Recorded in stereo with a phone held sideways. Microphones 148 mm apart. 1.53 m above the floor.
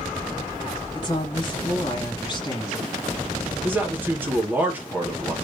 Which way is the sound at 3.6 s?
15° right (ahead or behind).